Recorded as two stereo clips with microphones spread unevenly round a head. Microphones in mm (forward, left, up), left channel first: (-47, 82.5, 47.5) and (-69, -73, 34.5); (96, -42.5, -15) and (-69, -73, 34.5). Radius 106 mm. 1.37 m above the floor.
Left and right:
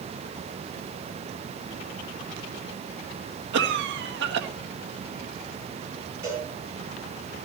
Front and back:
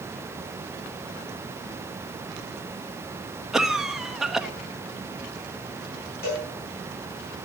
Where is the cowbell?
20° right, 10 m.